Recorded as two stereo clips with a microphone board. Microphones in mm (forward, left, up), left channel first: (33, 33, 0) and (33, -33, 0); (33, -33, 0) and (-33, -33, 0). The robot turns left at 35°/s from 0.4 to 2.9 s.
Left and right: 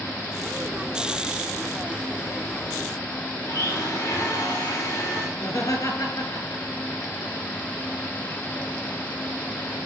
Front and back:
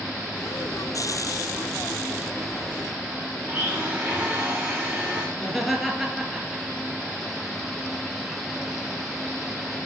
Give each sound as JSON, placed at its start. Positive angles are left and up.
{"t": 3.4, "sound": "a blender", "azimuth_deg": 110, "distance_m": 4.5}
{"t": 5.4, "sound": "laughter", "azimuth_deg": 95, "distance_m": 3.0}